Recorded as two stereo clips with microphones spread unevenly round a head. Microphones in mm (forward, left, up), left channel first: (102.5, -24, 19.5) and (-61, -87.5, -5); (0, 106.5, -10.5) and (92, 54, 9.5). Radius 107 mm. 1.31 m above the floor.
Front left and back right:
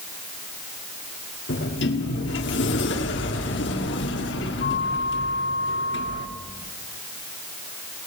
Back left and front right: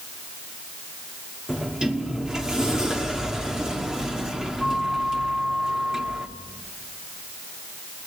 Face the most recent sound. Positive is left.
turn(degrees=50)